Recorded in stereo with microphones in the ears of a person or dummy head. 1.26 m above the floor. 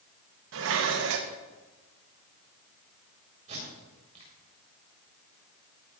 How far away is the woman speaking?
I don't hear a woman speaking.